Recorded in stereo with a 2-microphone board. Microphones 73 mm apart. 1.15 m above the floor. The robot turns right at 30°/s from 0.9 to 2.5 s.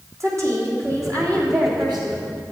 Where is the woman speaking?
135° right, 3 m; by 2.2 s 95° right, 3 m.